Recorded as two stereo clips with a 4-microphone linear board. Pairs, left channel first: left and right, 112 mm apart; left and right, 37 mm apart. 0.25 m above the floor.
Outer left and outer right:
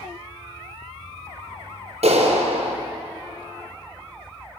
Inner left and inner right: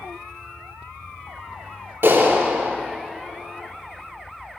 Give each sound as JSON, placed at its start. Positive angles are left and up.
{"t": 2.0, "sound": "a clap", "side_deg": -70, "distance_m": 3.5}